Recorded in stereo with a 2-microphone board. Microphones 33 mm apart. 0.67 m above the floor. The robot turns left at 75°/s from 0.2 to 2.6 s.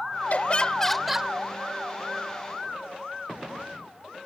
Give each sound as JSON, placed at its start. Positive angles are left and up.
{"t": 0.3, "sound": "laughter", "azimuth_deg": 60}